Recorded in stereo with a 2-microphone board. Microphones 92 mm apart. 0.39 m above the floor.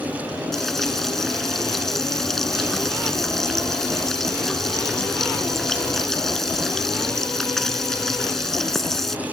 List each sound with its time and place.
0.5 s frying: 5° left (ahead or behind)